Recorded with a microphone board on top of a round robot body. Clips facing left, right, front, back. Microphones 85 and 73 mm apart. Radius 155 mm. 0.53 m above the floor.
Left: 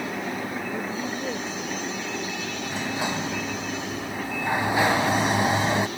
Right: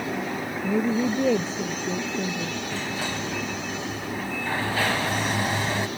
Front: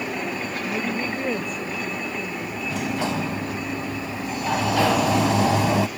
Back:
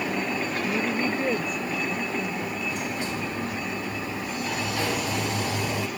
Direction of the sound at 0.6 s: 90° right.